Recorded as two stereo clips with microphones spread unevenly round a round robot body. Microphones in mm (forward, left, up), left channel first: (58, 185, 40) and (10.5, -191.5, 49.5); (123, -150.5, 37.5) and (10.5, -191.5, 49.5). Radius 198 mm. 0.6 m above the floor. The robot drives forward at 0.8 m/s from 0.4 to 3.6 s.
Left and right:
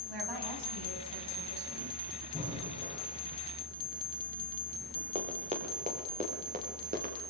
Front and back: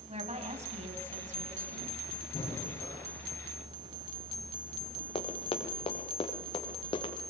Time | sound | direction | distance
0.1 | a woman speaking | 130° right | 5 m
2.3 | breathing | 25° right | 7.5 m
5.2 | running footsteps | 20° right | 4.5 m